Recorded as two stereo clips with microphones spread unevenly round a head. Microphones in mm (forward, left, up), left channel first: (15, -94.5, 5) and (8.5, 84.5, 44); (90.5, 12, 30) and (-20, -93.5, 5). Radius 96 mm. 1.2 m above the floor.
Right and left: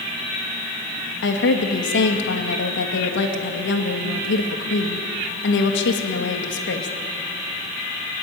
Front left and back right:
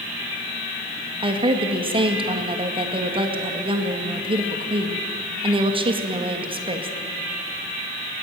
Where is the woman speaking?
80° right, 2 m.